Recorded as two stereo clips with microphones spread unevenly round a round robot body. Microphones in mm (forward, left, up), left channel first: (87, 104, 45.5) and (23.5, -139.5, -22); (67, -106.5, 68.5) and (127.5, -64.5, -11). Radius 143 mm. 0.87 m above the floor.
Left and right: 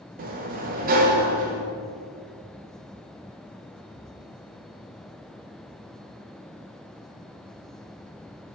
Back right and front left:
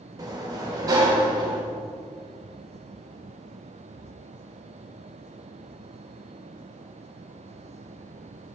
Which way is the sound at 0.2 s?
145° right.